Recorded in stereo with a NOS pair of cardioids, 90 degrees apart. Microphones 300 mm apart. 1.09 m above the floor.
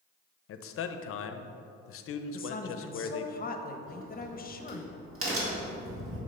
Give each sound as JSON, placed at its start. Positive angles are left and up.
{"t": 0.5, "sound": "a man speaking", "azimuth_deg": 55, "distance_m": 0.6}
{"t": 2.3, "sound": "a woman speaking", "azimuth_deg": 30, "distance_m": 0.7}
{"t": 3.9, "sound": "a crack", "azimuth_deg": -55, "distance_m": 2.0}